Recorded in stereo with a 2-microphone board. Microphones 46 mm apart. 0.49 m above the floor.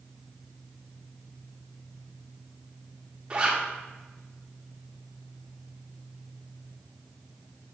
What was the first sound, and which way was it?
A zipper, 25° right (ahead or behind).